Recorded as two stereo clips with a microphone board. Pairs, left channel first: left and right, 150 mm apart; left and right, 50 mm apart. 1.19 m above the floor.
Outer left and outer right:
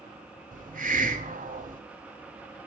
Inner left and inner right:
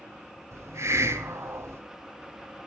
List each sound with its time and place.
0.5 s a hiss: 65° right (ahead or behind), 2.5 m